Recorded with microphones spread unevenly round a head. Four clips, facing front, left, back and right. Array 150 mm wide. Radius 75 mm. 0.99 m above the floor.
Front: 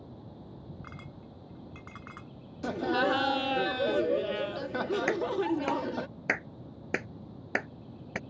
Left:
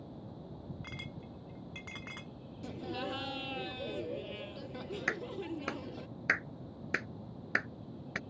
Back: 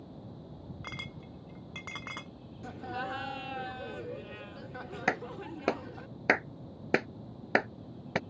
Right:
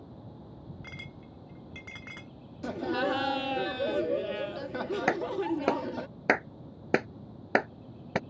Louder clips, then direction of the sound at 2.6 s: Right 10 dB, front 10 dB; 35° right.